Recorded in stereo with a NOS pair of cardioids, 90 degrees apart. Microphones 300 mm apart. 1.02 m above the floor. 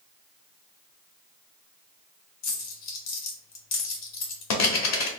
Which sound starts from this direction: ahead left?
A dropped coin, at 2.4 s.